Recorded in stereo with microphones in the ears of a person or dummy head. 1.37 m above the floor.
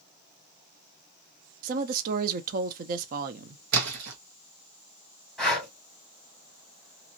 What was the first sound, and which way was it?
A woman speaking, 55° right (ahead or behind).